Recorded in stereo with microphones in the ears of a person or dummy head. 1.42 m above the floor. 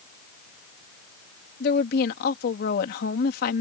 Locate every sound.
1.6 s a woman speaking: 55° left (ahead or behind)